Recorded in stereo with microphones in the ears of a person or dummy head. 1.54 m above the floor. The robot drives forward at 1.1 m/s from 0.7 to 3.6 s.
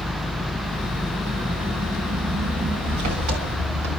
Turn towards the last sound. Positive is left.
turn(degrees=-65)  # may be behind; listen again after turning